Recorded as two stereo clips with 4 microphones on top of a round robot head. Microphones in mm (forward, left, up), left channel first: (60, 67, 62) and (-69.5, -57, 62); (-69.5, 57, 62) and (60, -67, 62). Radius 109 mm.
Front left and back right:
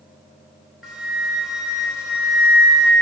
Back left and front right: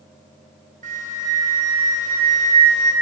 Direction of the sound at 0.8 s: 50° right.